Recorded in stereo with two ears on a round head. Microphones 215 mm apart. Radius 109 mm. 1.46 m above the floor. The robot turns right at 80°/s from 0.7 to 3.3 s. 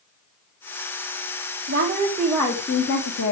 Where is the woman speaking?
50° right, 1.6 m; by 3.3 s 80° left, 1.6 m.